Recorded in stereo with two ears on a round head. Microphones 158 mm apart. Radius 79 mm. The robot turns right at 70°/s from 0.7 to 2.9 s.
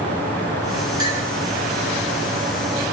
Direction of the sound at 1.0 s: 25° right (ahead or behind).